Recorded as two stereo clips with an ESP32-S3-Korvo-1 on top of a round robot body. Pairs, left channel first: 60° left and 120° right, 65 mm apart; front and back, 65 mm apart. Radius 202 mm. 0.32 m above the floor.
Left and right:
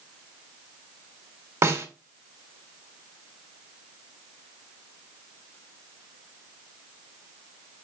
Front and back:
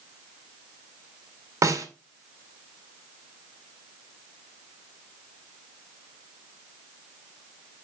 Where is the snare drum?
150° right, 2.5 m.